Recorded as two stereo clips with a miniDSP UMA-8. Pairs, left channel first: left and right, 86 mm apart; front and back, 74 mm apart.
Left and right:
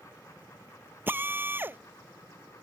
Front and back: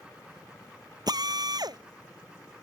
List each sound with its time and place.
1.1 s a drill: 155° right